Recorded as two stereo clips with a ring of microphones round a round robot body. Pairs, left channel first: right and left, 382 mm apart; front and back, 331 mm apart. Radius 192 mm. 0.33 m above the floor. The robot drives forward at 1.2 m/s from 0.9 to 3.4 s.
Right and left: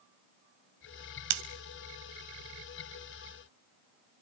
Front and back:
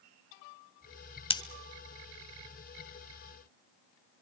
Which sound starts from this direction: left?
Scissors, at 1.3 s.